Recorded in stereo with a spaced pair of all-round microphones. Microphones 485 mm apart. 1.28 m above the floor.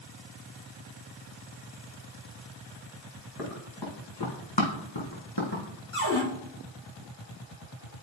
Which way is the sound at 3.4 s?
45° left (ahead or behind).